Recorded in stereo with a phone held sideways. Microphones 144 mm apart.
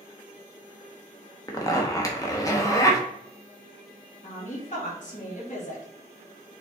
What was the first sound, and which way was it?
A zipper, 25° left (ahead or behind).